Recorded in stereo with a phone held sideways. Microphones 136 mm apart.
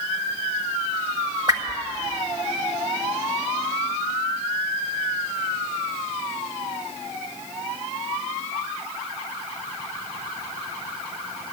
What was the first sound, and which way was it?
A whoosh, 30° right (ahead or behind).